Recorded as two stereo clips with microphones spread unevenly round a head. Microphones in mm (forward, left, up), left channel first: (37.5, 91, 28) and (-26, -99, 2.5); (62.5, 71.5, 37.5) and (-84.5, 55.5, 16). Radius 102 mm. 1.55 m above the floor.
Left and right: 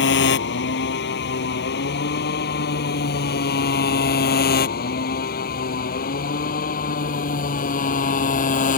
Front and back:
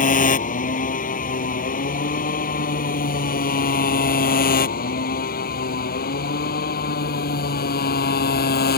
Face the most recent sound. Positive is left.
turn(degrees=20)